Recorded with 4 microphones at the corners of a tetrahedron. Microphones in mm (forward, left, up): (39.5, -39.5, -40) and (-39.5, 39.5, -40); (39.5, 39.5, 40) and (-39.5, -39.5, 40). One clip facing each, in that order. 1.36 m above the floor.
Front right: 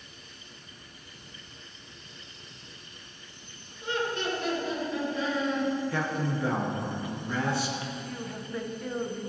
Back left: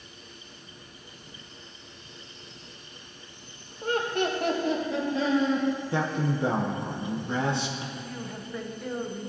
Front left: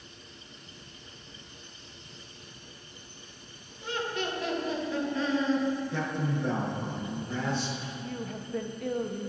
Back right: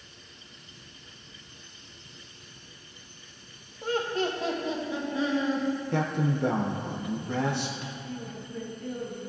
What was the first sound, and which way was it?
Laughter, straight behind.